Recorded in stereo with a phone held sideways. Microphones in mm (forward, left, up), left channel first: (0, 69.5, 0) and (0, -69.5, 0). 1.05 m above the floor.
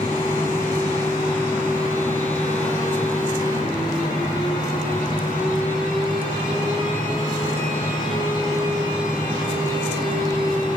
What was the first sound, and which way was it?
A fan, 75° left (ahead or behind).